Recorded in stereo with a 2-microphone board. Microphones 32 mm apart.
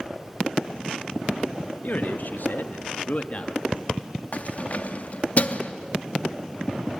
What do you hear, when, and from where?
1.8 s a man speaking: 55° left (ahead or behind), 1.5 m; by 3.6 s 35° left (ahead or behind), 1.3 m
4.3 s keys jangling: 45° left (ahead or behind), 0.8 m